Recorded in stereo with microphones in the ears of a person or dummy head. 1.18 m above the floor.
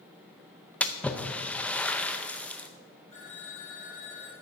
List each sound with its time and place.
0.8 s a splash: 5° left (ahead or behind), 0.6 m
3.1 s a phone ringing: 35° left (ahead or behind), 4 m